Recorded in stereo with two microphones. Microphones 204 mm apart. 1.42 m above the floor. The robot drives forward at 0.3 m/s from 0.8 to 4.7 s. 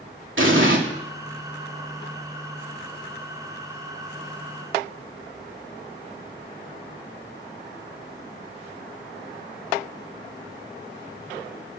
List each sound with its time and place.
0.4 s an explosion: 75° right (ahead or behind), 2.5 m